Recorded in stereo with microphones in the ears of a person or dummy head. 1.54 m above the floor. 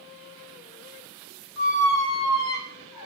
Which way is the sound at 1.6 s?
30° left (ahead or behind).